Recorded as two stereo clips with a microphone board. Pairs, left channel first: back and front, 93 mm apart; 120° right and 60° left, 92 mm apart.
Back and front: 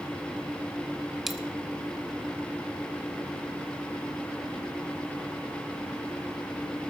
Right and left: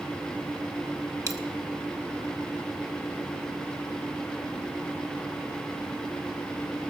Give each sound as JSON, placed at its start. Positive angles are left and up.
{"t": 1.3, "sound": "a dropped coin", "azimuth_deg": 90, "distance_m": 0.9}